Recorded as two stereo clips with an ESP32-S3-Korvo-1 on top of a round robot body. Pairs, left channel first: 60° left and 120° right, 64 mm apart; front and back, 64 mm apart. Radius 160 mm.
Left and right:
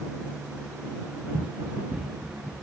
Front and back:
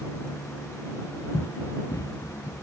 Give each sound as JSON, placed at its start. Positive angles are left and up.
{"t": 1.3, "sound": "running footsteps", "azimuth_deg": -35}